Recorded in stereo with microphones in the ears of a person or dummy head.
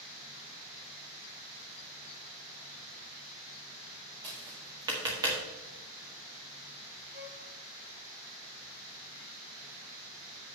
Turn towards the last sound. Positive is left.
turn(degrees=-55)  # may be behind; listen again after turning